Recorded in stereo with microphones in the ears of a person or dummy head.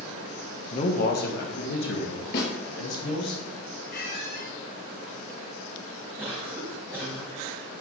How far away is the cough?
About 2 m.